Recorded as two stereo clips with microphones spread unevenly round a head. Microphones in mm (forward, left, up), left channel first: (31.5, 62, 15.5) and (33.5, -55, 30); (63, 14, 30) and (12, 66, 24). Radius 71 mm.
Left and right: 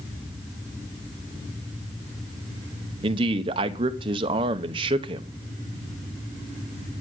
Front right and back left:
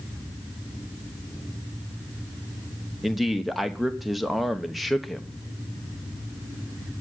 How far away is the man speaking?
About 0.8 m.